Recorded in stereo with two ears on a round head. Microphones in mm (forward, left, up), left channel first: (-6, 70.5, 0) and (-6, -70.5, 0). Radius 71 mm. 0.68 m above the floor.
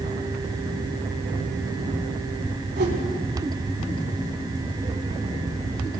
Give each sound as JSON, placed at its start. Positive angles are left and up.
{"t": 2.8, "sound": "a whoosh", "side_deg": -70, "distance_m": 1.8}